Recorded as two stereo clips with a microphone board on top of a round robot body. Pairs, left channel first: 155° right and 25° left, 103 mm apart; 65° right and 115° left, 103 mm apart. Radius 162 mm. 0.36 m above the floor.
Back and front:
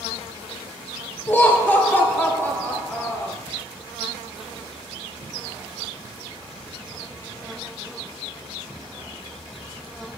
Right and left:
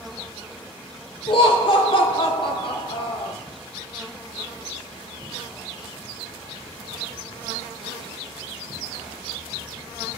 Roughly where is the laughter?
Right.